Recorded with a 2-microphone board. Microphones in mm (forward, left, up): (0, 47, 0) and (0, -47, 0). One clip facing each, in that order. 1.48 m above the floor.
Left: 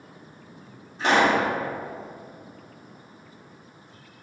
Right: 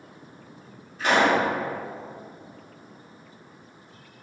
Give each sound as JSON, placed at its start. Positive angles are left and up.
{"t": 1.0, "sound": "a pop", "side_deg": 30, "distance_m": 1.7}